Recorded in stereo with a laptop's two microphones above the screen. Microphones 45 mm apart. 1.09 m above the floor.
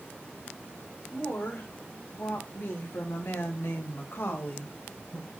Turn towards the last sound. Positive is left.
turn(degrees=25)  # may be behind; listen again after turning